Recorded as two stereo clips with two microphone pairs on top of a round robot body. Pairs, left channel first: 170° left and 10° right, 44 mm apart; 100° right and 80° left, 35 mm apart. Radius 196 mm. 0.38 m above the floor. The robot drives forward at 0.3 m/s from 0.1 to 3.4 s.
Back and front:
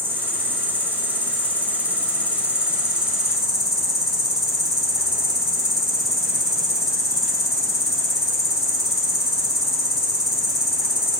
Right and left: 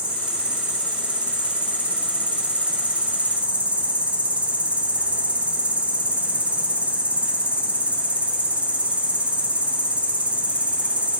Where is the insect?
30° left, 1.7 m; by 11.2 s 75° left, 1.2 m.